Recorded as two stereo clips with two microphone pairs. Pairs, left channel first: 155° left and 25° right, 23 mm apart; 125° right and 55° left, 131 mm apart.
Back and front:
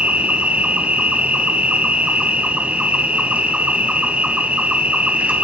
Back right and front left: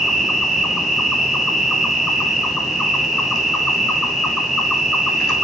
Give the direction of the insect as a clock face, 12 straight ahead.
1 o'clock.